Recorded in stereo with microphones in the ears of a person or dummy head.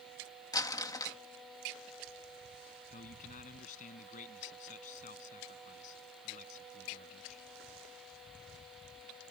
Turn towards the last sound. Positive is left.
turn(degrees=50)  # may be behind; listen again after turning